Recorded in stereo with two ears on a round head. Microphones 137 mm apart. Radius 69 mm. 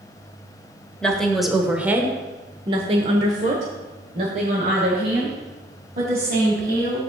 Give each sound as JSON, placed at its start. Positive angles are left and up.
{"t": 1.0, "sound": "a woman speaking", "side_deg": 5, "distance_m": 1.2}